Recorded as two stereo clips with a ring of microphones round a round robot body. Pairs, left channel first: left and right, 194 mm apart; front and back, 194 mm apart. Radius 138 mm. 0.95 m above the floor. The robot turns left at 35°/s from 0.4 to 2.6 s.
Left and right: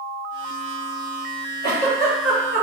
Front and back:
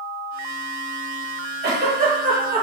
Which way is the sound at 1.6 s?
150° left.